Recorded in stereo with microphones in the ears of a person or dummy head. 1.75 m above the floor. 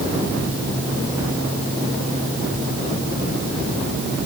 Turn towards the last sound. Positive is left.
No sound to turn to.